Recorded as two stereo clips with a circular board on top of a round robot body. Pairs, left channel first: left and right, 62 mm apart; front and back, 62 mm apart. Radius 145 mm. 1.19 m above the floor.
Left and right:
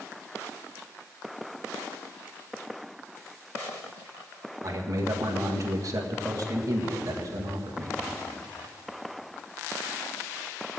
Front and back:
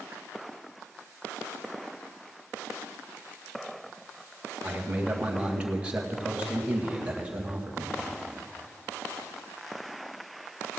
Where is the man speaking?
110° right, 1.9 m.